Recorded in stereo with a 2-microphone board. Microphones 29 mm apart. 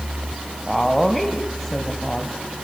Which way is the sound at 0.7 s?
5° left (ahead or behind).